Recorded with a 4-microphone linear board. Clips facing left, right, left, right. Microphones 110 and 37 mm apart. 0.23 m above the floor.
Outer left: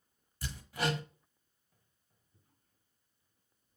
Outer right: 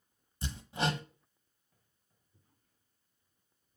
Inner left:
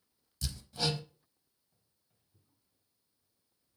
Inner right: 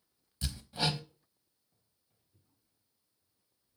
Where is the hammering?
25° right (ahead or behind), 0.6 m.